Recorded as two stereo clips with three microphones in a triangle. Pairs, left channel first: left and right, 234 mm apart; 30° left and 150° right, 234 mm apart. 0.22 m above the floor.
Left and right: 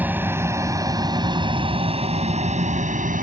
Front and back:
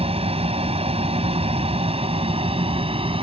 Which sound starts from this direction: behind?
An aircraft, at 0.0 s.